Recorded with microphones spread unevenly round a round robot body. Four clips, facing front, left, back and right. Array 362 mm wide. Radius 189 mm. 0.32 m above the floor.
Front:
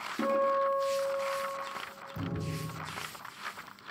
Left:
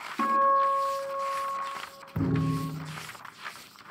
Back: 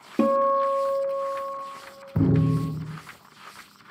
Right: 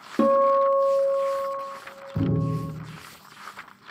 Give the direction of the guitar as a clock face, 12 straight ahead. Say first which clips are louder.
Right 5 dB, back 7 dB; 5 o'clock.